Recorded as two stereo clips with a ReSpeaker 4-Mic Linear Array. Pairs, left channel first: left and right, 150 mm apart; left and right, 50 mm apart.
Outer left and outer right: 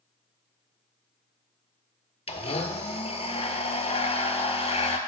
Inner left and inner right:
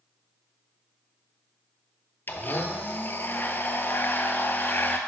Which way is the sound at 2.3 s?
45° left (ahead or behind).